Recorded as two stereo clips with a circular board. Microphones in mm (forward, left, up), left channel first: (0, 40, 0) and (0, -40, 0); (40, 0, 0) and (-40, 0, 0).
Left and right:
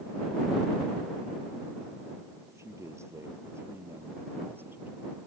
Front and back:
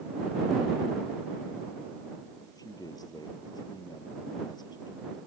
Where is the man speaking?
35° right; by 5.2 s 25° right.